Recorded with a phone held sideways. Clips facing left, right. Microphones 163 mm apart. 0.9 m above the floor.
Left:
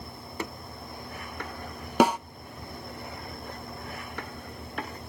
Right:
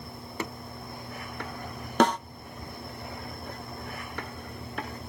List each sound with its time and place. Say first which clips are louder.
2.0 s a snare drum: left 1 dB; 10° left (ahead or behind), 0.6 m